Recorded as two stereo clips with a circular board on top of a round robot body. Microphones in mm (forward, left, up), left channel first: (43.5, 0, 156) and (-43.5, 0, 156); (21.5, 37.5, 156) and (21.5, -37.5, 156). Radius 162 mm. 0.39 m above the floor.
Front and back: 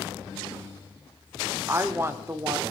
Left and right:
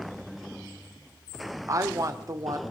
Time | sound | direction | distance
1.7 | a woman speaking | 125° right | 1.4 m